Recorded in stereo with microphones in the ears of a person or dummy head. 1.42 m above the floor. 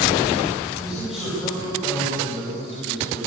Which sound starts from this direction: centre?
A man speaking, at 0.8 s.